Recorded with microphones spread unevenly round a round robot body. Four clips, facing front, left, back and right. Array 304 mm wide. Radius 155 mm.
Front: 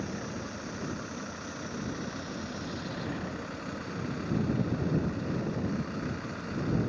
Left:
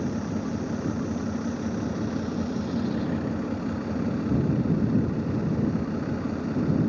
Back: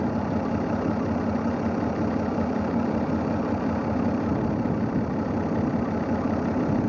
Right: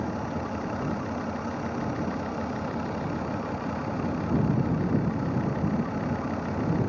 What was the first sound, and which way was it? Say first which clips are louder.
An engine running: left 2 dB, back 12 dB; 150° left.